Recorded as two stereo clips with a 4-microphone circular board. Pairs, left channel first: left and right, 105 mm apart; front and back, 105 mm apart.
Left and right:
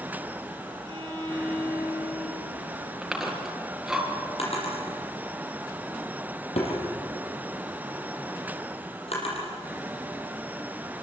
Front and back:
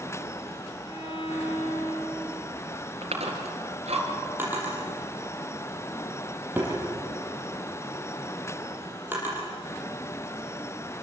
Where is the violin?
40° right, 10 m.